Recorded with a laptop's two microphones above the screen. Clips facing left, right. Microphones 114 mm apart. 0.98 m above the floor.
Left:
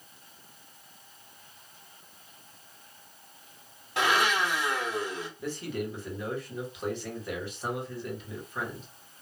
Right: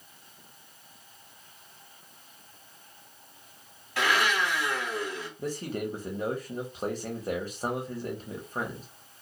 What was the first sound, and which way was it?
A blender, 25° left (ahead or behind).